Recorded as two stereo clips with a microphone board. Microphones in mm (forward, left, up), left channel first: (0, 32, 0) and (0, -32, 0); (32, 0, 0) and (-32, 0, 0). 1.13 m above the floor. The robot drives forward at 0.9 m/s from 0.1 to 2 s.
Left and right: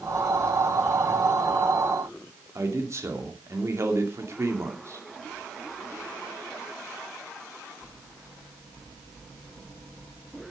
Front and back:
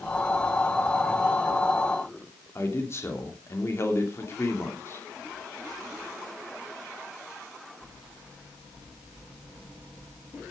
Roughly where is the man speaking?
Ahead right.